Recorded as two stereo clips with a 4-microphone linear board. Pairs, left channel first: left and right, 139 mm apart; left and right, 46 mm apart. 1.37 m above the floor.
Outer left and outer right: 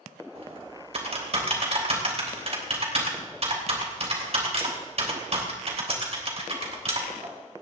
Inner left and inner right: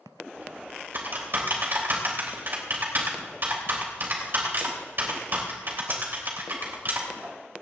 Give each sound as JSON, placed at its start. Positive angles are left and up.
{"t": 0.3, "sound": "typing on a keyboard", "side_deg": -50, "distance_m": 3.5}